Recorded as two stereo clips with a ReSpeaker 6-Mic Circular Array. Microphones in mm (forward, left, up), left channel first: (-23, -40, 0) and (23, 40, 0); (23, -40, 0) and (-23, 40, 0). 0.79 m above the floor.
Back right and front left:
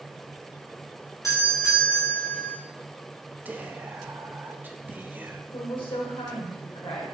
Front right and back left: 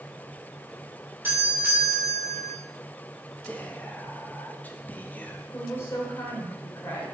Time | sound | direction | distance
1.2 | a doorbell | 175° right | 3 m
3.5 | whispering | straight ahead | 0.9 m
5.5 | a woman speaking | 125° right | 3.5 m